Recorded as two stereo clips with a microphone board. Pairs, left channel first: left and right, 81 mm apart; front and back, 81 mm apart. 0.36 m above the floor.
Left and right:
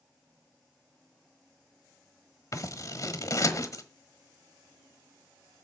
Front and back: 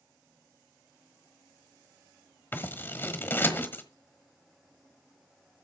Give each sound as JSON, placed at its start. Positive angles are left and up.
{"t": 2.5, "sound": "scissors", "azimuth_deg": 55, "distance_m": 1.3}